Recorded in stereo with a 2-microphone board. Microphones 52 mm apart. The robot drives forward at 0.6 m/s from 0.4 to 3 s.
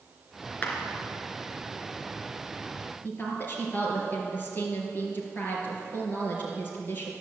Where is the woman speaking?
35° left (ahead or behind), 5 m.